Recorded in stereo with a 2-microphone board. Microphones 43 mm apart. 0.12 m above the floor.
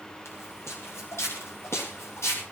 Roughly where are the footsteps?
Left.